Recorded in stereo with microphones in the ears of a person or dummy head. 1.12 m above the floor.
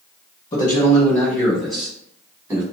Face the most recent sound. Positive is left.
turn(degrees=-20)  # may be behind; listen again after turning